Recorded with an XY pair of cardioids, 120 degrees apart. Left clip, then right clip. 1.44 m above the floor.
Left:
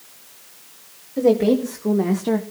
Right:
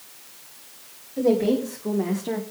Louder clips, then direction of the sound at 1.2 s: Left 4 dB; 35° left.